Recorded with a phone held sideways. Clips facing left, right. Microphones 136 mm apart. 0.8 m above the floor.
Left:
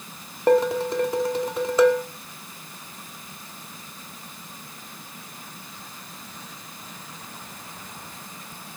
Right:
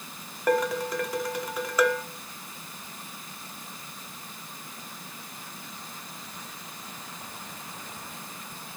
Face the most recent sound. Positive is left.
turn(degrees=30)  # may be behind; listen again after turning